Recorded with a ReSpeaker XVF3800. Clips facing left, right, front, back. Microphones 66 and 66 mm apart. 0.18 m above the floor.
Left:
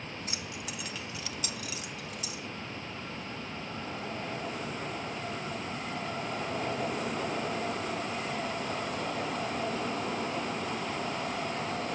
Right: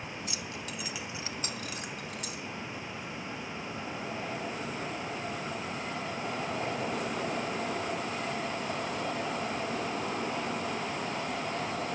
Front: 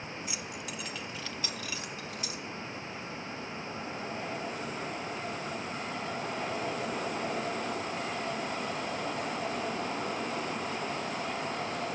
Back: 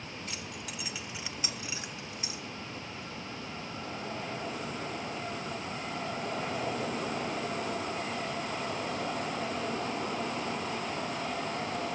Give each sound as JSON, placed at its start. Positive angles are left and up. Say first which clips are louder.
{"t": 0.3, "sound": "keys jangling", "louder": "even, front 2 dB", "azimuth_deg": 70, "distance_m": 1.1}